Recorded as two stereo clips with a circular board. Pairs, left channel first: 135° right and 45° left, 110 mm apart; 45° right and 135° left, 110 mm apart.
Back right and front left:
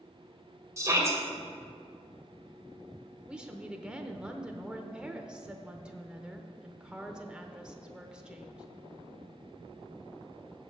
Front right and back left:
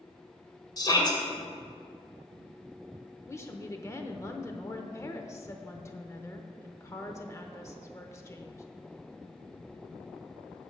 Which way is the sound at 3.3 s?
25° right.